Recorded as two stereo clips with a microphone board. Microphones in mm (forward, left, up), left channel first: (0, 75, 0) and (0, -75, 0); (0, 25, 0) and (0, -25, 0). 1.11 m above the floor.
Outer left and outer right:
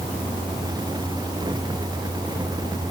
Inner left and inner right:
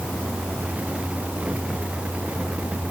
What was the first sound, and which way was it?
Only background noise.